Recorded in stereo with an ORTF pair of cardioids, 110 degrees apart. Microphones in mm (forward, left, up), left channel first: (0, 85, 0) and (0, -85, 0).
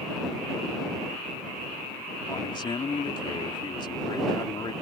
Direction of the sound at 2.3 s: 30° left.